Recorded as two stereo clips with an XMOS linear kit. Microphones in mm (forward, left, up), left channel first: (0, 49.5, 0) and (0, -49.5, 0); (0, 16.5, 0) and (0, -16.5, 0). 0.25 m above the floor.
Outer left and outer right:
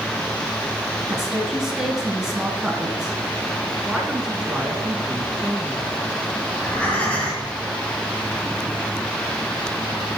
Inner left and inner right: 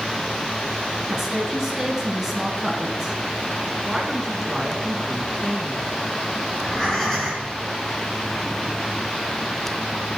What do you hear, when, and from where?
1.1 s a woman speaking: 5° right (ahead or behind), 3 m
3.9 s a woman speaking: 5° right (ahead or behind), 2.5 m
6.5 s breathing: 15° left (ahead or behind), 4 m